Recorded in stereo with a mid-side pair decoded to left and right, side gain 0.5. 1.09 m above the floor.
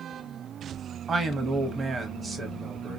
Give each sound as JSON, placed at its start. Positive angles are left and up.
{"t": 1.1, "sound": "a man speaking", "azimuth_deg": -35, "distance_m": 1.4}